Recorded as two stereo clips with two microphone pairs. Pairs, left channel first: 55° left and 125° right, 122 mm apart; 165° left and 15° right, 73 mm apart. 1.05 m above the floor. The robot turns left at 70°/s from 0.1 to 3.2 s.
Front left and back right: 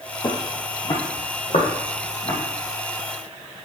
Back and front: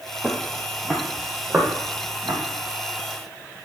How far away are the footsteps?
About 1.3 m.